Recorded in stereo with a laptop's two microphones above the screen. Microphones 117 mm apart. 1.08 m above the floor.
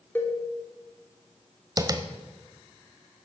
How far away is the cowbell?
About 3 m.